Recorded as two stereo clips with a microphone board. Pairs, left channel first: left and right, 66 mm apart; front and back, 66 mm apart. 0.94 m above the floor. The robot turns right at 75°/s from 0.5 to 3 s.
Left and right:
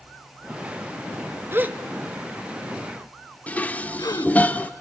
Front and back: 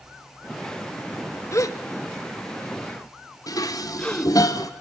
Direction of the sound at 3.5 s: 20° left.